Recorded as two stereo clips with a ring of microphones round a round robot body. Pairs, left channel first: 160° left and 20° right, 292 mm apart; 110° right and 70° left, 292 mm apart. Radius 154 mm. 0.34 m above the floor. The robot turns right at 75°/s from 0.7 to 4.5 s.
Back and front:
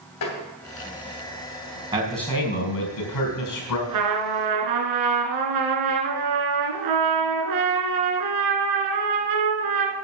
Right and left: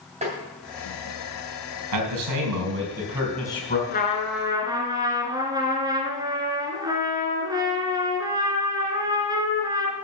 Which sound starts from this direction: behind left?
Tapping, at 0.2 s.